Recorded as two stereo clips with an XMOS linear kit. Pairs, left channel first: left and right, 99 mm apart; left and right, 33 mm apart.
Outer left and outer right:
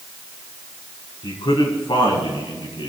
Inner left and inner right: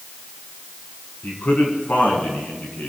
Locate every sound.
1.2 s a man speaking: 55° left (ahead or behind), 5 m; by 2.9 s 60° left (ahead or behind), 5.5 m